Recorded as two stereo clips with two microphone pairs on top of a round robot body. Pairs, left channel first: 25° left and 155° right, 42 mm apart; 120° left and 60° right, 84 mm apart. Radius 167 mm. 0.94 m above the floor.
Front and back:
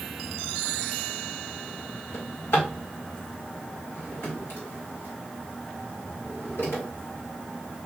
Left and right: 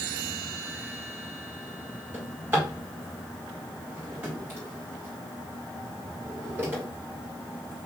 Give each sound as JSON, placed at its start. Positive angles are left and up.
{"t": 2.1, "sound": "a drawer", "azimuth_deg": 0, "distance_m": 2.0}